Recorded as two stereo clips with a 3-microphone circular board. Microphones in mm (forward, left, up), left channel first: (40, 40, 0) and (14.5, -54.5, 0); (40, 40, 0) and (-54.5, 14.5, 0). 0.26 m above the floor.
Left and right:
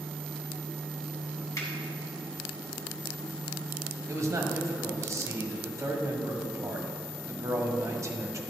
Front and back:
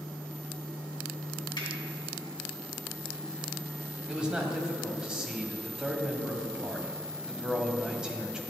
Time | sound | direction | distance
1.6 | a finger snap | 25° left | 2 m
4.1 | a man speaking | 90° right | 1.4 m